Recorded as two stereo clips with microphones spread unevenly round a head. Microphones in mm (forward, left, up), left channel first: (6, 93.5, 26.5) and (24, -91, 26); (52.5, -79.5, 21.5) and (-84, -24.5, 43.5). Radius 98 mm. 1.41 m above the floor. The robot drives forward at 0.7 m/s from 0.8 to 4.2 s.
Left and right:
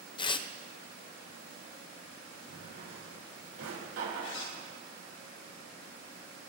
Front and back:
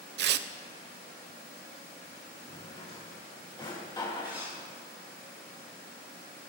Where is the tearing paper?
160° left, 0.6 m.